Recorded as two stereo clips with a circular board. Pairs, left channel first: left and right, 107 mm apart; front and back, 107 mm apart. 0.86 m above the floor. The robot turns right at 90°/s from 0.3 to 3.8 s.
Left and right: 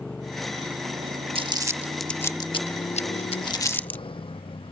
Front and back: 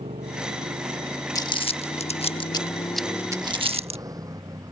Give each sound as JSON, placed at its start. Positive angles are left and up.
{"t": 0.0, "sound": "a motorcycle", "azimuth_deg": 170}
{"t": 1.4, "sound": "crumpling", "azimuth_deg": -60}